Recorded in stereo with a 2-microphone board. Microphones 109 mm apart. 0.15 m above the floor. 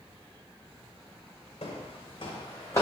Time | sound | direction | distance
1.6 | footsteps | 80° left | 0.6 m